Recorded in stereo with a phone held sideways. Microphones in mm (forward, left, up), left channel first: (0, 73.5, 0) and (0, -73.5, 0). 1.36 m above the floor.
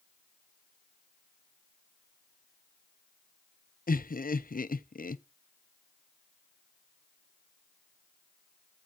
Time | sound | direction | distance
3.9 | laughter | 70° left (ahead or behind) | 0.6 m